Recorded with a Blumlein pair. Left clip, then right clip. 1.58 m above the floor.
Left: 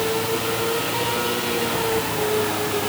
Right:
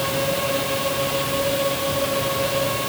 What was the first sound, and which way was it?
Only background noise.